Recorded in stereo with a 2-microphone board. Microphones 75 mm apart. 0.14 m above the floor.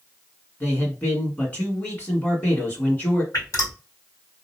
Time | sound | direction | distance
0.6 | a man speaking | 20° left (ahead or behind) | 1.5 m
3.3 | dripping | 50° left (ahead or behind) | 1.6 m